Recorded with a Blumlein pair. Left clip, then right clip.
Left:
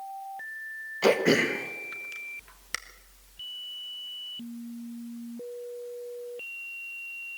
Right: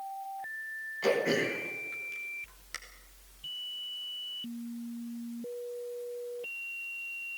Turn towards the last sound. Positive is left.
turn(degrees=25)